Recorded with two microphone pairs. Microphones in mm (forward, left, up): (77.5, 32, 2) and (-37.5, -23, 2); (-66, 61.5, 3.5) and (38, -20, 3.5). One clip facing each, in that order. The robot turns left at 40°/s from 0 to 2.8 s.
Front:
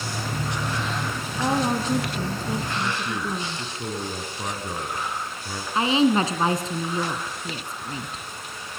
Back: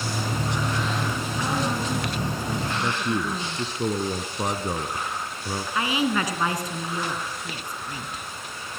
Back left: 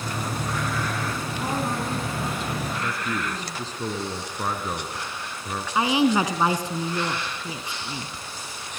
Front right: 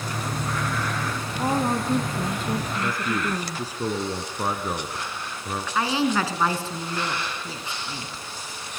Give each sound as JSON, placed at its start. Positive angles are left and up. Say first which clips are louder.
{"t": 1.4, "sound": "a woman speaking", "louder": "front 5 dB, front right 5 dB", "azimuth_deg": 10, "distance_m": 2.0}
{"t": 2.8, "sound": "a man speaking", "louder": "back 2 dB, front right 2 dB", "azimuth_deg": -115, "distance_m": 1.9}
{"t": 5.8, "sound": "a woman speaking", "louder": "front 6 dB, back left 3 dB", "azimuth_deg": 75, "distance_m": 2.0}